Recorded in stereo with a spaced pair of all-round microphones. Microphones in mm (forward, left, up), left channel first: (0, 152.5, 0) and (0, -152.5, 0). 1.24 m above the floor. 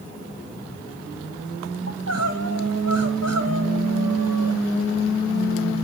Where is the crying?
55° right (ahead or behind), 1.7 m.